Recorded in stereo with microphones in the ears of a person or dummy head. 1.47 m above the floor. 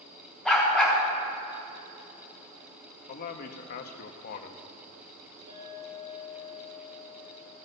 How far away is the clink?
About 3.5 m.